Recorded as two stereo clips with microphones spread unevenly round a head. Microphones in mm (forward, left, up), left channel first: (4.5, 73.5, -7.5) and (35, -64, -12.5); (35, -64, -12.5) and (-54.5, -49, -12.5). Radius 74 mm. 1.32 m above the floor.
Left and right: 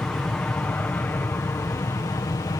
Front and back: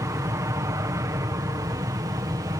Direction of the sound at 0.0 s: 175° right.